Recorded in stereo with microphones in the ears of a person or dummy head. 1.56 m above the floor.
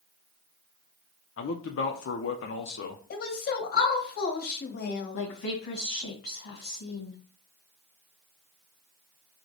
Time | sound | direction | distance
1.4 | a man speaking | 60° left (ahead or behind) | 0.6 m
3.1 | a woman speaking | 50° left (ahead or behind) | 1.3 m
5.1 | a woman speaking | 65° left (ahead or behind) | 1.1 m